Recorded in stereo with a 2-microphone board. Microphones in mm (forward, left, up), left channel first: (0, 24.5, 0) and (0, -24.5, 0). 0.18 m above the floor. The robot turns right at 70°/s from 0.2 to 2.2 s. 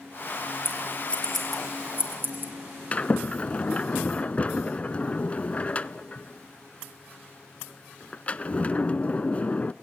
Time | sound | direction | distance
0.7 | scissors | 55° left (ahead or behind) | 4 m
2.9 | a sliding door | 30° left (ahead or behind) | 0.5 m